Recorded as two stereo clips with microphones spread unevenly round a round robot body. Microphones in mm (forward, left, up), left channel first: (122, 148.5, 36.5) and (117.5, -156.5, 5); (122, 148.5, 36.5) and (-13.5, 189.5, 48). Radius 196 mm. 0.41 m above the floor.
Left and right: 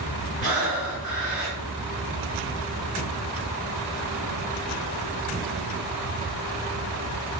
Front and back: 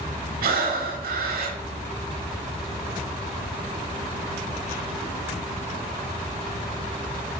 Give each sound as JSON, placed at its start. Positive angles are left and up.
{"t": 0.4, "sound": "breathing", "azimuth_deg": 160, "distance_m": 0.8}